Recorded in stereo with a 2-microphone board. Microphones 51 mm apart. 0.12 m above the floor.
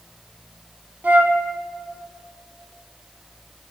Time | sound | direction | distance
1.0 | a flute | 40° right (ahead or behind) | 1.4 m